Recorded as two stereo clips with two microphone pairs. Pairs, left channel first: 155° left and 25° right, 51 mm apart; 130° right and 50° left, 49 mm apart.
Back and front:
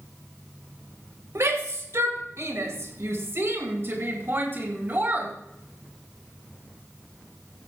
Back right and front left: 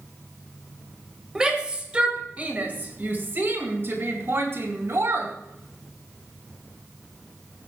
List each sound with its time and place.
1.4 s a shout: 25° right, 2.5 m; by 5.3 s 30° left, 3 m